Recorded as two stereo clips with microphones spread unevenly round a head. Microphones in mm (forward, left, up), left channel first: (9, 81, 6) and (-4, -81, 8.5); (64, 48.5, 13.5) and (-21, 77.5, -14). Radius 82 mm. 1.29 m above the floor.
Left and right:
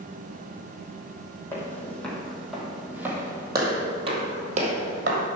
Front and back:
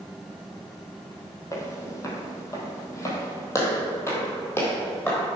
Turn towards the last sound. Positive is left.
turn(degrees=-75)